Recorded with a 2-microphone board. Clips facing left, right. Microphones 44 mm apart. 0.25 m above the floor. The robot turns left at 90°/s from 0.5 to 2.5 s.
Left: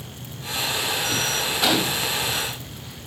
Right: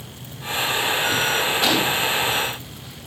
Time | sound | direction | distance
1.6 | a gunshot | 175° left | 1.3 m